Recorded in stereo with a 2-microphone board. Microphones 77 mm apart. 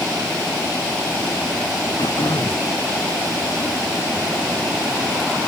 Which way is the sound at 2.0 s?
80° left.